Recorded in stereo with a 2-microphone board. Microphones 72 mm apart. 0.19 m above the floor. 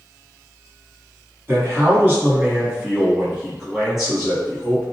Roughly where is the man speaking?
Right.